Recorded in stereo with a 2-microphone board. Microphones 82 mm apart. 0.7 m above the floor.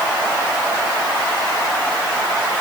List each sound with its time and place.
Only background noise.